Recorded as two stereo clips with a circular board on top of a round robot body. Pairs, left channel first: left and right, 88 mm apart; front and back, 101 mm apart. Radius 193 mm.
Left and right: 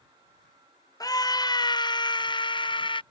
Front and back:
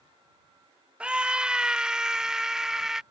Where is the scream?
105° left; by 3.0 s 95° left.